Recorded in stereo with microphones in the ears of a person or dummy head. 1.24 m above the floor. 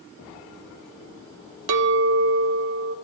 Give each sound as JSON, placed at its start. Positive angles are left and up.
{"t": 1.7, "sound": "a clink", "side_deg": -60, "distance_m": 0.7}